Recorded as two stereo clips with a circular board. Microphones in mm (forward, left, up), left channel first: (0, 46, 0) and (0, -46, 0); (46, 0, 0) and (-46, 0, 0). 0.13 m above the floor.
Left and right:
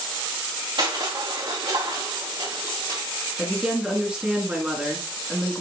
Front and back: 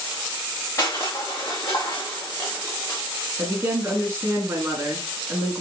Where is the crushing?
60° right, 3 m.